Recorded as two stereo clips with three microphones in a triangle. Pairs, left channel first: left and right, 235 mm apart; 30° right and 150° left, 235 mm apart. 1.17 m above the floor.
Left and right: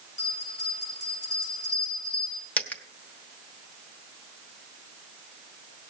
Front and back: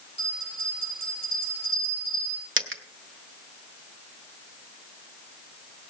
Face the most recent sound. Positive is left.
turn(degrees=170)